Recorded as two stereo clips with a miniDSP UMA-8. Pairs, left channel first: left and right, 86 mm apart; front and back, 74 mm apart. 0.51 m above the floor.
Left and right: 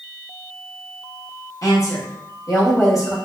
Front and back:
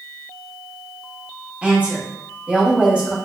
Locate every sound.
1.6 s a woman speaking: 115° left, 1.0 m